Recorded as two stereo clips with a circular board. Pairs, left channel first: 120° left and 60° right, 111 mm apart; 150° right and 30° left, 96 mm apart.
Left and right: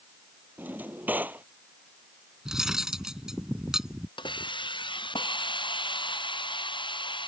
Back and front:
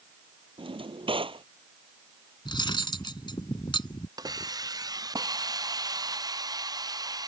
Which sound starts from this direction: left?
A hiss, at 4.2 s.